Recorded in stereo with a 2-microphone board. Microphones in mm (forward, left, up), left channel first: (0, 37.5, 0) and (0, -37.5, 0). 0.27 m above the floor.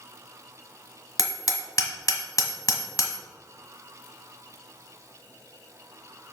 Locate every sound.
1.2 s hammering: 50° left (ahead or behind), 1.2 m